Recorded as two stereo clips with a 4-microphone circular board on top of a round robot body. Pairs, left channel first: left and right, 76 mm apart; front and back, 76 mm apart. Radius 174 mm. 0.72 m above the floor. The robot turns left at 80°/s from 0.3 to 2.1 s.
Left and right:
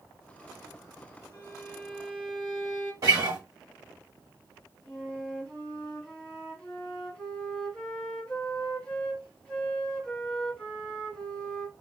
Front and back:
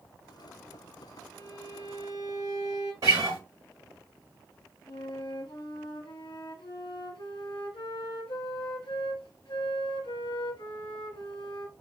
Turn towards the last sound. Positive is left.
turn(degrees=15)